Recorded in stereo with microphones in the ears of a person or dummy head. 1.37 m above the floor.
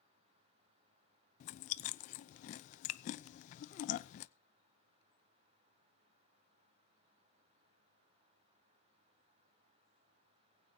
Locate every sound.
1.4 s chewing: 45° left (ahead or behind), 0.6 m